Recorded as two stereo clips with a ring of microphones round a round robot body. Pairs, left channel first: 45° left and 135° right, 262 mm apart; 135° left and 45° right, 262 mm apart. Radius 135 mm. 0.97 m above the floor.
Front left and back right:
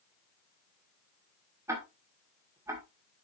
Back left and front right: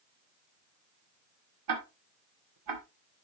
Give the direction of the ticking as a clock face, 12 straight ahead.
2 o'clock.